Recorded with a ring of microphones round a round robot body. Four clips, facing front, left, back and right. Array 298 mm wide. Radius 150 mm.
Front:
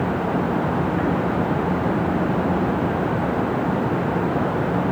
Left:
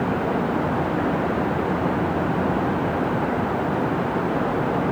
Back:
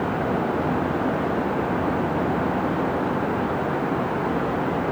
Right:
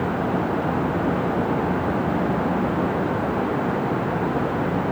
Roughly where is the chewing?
I don't hear chewing.